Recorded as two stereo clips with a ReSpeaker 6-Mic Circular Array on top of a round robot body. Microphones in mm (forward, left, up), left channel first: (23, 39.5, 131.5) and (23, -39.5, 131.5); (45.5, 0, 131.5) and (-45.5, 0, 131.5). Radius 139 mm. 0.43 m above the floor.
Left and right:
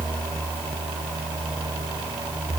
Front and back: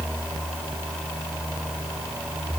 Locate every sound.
Only background noise.